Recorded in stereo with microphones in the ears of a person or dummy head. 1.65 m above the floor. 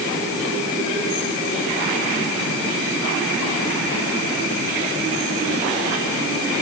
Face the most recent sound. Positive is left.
No sound to turn to.